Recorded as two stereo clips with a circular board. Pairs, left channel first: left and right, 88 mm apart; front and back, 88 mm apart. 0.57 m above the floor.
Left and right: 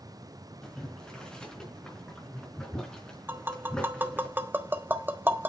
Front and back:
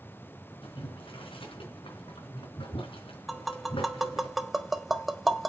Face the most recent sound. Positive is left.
turn(degrees=-90)